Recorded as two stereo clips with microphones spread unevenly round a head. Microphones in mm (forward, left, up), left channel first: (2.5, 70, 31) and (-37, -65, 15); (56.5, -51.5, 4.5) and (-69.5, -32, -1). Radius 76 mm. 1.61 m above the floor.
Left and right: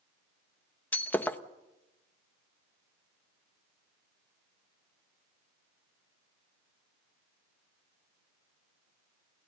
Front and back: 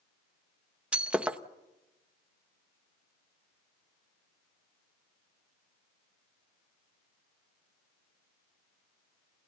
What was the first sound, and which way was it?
Breaking glass, 95° left.